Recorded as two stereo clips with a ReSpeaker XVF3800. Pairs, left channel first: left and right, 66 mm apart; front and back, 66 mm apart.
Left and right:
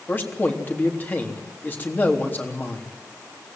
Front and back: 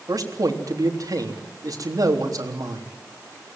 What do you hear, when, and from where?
0.1 s a man speaking: 150° left, 3.5 m